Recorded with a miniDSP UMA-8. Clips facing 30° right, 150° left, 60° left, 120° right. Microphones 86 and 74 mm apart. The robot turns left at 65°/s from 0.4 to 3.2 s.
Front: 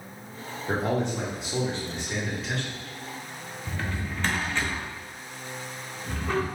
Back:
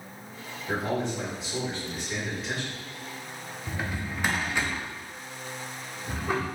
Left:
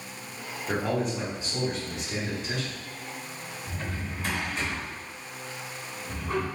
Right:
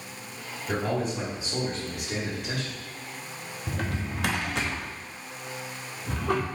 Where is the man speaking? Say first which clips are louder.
Front 2 dB, even; 5° right, 1.6 m; by 2.8 s 140° right, 1.6 m.